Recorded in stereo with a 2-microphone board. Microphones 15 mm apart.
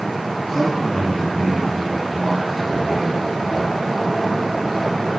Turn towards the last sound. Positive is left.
turn(degrees=15)  # may be behind; listen again after turning